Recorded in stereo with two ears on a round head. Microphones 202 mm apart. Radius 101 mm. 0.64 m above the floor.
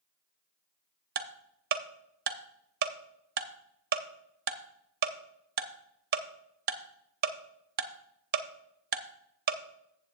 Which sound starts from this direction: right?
Ticking, at 1.1 s.